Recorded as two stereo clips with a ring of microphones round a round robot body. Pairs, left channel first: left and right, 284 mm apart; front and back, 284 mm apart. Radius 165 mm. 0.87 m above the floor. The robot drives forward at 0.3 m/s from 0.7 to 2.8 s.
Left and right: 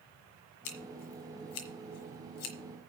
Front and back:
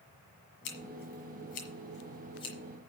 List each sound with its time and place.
0.7 s scissors: 55° left, 1.7 m; by 2.5 s 75° left, 1.5 m